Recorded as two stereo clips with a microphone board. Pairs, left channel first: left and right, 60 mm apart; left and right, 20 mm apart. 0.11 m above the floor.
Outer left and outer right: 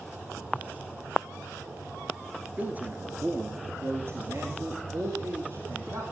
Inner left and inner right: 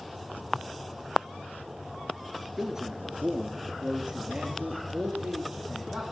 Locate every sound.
2.6 s a man speaking: 25° right (ahead or behind), 1.5 m; by 6.0 s 60° right (ahead or behind), 3.5 m